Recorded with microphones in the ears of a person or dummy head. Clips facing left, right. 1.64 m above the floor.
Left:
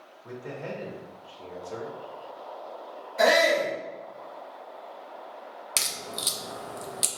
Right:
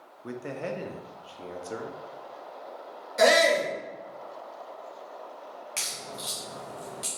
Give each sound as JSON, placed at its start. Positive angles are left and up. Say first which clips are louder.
{"t": 0.2, "sound": "a man speaking", "louder": "right 3 dB", "side_deg": -55, "distance_m": 0.6}
{"t": 3.2, "sound": "a shout", "louder": "right 1 dB", "side_deg": -60, "distance_m": 1.5}
{"t": 5.8, "sound": "a crack", "louder": "left 2 dB", "side_deg": 50, "distance_m": 0.5}